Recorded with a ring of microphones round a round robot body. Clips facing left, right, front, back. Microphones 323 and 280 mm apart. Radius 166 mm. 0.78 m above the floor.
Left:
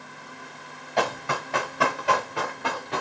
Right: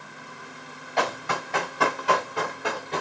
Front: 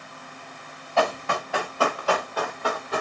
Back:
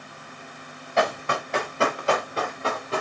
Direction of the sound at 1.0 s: 110° left.